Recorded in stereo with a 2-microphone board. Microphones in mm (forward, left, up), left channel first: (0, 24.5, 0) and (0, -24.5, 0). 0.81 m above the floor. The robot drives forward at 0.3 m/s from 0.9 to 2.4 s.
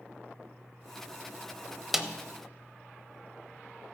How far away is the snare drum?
About 0.6 m.